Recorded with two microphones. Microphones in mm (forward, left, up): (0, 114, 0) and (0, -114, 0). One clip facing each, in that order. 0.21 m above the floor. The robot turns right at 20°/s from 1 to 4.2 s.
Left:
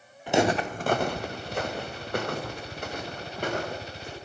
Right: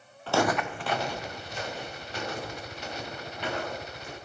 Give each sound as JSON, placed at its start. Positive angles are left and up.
{"t": 0.3, "sound": "footsteps", "side_deg": 15, "distance_m": 0.8}